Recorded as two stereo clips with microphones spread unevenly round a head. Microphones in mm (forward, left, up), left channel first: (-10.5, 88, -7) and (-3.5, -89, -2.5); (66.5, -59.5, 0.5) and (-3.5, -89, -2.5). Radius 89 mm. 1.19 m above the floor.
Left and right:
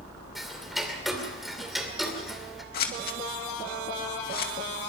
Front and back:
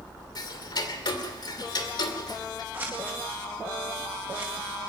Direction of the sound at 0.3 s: Straight ahead.